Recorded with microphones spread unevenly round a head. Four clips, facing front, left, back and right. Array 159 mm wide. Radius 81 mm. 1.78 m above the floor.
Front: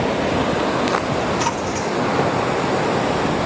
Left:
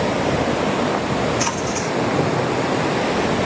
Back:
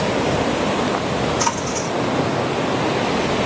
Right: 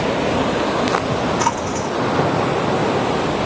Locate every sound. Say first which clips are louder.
1.4 s a splash: right 2 dB, even; 85° right, 1.8 m